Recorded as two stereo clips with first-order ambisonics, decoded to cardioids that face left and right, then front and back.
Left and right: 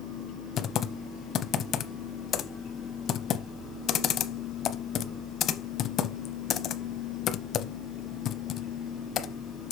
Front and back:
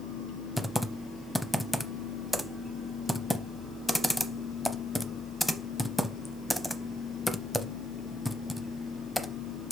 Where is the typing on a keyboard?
85° left, 0.6 m.